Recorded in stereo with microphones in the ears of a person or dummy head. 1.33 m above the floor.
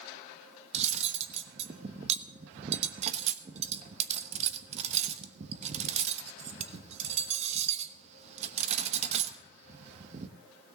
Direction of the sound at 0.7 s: 40° right (ahead or behind).